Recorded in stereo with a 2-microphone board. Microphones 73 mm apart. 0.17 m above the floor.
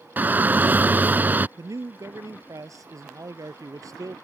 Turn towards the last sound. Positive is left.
turn(degrees=-50)  # may be behind; listen again after turning